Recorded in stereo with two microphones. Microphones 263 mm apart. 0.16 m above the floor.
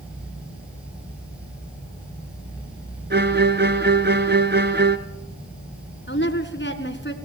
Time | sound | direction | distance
3.1 | a violin | 40° right (ahead or behind) | 1.3 m
6.1 | a woman speaking | 45° left (ahead or behind) | 2 m